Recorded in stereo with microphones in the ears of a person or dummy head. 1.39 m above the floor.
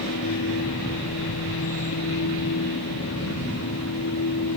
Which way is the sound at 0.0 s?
85° left.